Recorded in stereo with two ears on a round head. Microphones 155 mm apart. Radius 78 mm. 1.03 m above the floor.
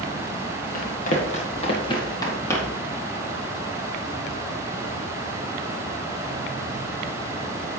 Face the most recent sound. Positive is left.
turn(degrees=10)  # may be behind; listen again after turning